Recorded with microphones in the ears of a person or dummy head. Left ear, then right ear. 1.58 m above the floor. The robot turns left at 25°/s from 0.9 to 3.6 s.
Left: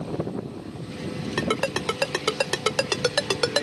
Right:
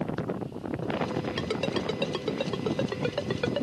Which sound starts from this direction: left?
A ringtone, at 1.4 s.